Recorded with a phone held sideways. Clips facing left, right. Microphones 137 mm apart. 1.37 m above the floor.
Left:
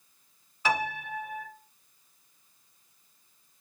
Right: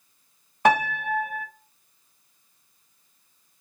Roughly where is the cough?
No cough in this recording.